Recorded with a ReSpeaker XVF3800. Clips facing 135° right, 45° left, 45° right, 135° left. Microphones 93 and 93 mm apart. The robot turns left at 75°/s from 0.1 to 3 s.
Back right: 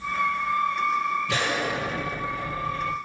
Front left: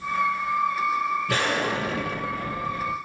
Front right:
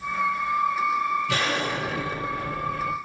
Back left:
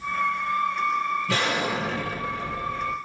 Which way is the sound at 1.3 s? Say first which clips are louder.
Front left 2 dB, back left 1 dB; 90° left.